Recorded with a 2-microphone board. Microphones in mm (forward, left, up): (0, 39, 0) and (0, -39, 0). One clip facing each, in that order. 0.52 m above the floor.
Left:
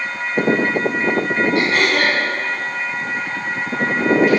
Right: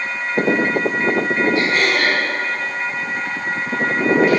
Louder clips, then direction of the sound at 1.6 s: Left 1 dB; 65° left (ahead or behind).